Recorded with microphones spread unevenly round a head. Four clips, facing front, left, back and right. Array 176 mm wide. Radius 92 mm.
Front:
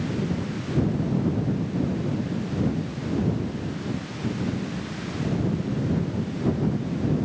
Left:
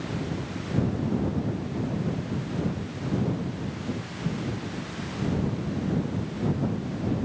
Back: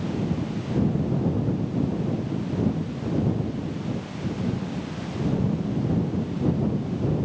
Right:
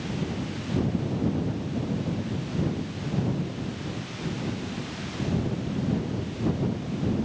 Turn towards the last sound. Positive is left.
No sound to turn to.